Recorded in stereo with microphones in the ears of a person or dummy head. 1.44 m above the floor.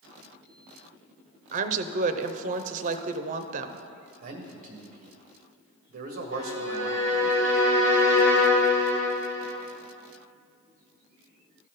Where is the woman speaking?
45° right (ahead or behind), 0.6 m.